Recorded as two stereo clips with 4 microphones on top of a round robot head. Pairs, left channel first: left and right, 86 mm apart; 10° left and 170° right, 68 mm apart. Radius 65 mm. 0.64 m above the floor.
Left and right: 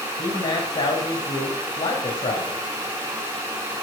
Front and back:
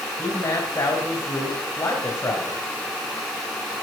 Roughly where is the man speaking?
Ahead left.